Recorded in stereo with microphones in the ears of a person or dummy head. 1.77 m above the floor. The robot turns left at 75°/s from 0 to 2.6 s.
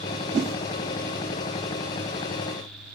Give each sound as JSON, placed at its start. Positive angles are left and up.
{"t": 0.3, "sound": "a whoosh", "side_deg": -80, "distance_m": 1.4}